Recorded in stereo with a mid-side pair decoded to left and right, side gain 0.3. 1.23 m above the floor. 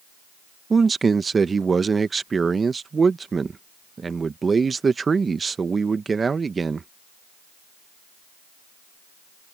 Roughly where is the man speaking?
Ahead right.